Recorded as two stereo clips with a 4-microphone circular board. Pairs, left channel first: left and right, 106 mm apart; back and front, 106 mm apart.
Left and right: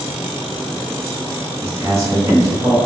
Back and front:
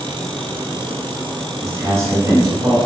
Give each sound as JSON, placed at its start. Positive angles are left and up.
{"t": 1.6, "sound": "a man speaking", "azimuth_deg": -45, "distance_m": 1.1}